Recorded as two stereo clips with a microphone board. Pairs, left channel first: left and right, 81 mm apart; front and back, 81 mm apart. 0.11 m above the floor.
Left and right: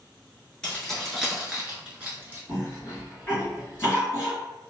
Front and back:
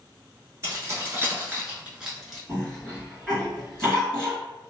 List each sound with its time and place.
0.6 s keys jangling: 165° left, 1.2 m; by 2.4 s 90° right, 1.0 m
2.5 s a cough: 85° left, 1.8 m